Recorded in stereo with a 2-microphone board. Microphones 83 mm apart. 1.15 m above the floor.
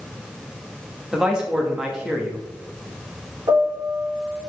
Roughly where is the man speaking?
Centre.